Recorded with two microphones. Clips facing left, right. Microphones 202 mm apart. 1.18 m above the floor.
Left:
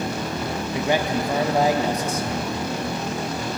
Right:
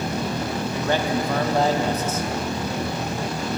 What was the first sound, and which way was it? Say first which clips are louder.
A man speaking: left 1 dB; 10° left (ahead or behind).